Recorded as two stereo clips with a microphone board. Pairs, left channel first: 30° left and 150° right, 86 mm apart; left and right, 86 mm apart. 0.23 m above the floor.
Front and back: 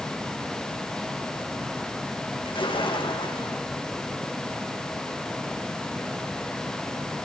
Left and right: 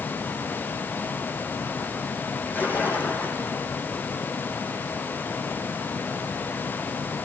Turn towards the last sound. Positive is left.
turn(degrees=20)